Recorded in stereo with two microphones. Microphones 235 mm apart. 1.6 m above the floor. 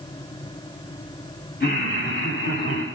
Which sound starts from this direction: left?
Laughter, at 1.6 s.